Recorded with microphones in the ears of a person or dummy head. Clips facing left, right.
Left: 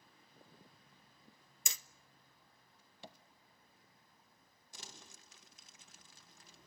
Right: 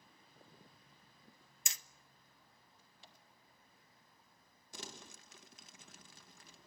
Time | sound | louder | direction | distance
1.7 | hammering | left 3 dB | 85° left | 0.7 m
3.0 | tapping | left 11 dB | 55° left (ahead or behind) | 1.0 m
4.7 | crumpling | right 6 dB | 65° right (ahead or behind) | 1.6 m